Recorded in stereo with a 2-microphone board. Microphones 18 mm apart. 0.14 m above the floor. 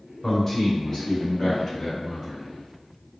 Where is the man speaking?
15° left (ahead or behind), 1.1 m.